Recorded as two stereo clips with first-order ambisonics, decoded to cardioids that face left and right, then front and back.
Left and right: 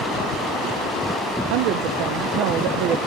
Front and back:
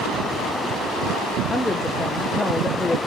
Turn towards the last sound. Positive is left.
turn(degrees=-80)